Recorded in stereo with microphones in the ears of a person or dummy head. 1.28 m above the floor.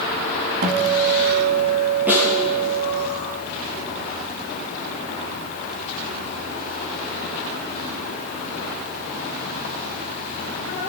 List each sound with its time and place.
0.6 s a guitar: 50° right (ahead or behind), 1.7 m
2.1 s a snare drum: 5° right (ahead or behind), 7.5 m